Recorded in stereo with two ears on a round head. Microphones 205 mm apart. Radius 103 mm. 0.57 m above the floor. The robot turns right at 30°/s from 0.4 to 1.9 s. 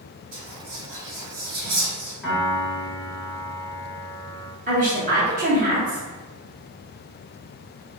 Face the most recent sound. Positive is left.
turn(degrees=-35)  # may be behind; listen again after turning